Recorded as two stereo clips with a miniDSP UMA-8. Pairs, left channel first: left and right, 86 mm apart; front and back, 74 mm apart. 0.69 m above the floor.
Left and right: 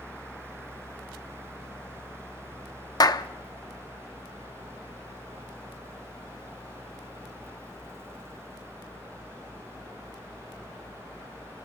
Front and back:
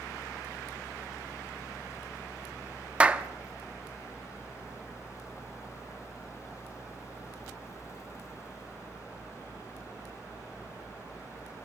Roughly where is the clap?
Left.